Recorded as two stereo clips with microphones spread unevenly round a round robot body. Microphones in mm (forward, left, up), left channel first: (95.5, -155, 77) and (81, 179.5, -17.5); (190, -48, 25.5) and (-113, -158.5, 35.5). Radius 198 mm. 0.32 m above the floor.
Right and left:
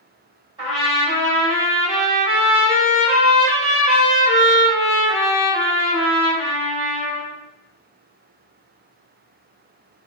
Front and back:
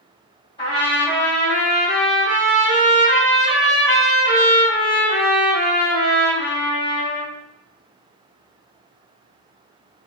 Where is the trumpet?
75° left, 1.4 m.